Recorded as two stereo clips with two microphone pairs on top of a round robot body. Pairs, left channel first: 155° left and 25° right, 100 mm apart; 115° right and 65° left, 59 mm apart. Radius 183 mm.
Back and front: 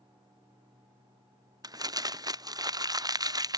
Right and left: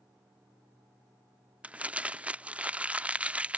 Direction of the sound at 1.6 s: 5° right.